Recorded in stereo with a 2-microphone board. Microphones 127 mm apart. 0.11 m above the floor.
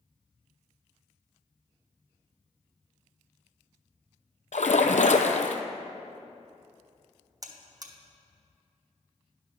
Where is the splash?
70° left (ahead or behind), 0.6 m.